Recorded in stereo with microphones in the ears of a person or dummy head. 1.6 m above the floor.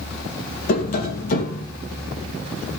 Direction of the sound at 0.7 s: 50° left (ahead or behind).